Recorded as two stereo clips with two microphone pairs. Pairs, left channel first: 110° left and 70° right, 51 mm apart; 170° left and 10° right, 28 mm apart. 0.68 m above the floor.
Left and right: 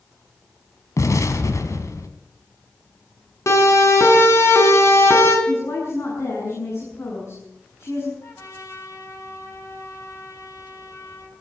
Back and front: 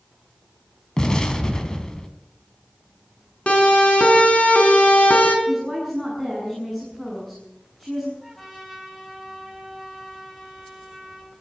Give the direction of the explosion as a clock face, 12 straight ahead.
8 o'clock.